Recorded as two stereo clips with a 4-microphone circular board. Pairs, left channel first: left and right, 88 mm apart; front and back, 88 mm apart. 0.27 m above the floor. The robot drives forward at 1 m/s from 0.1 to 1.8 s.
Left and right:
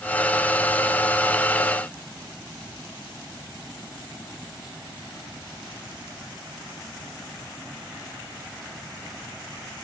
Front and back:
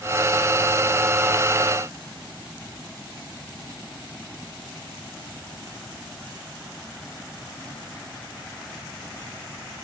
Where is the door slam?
No door slam in this recording.